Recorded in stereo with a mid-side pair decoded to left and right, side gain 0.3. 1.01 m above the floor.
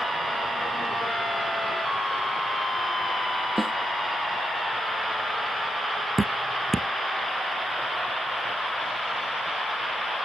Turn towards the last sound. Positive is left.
turn(degrees=-25)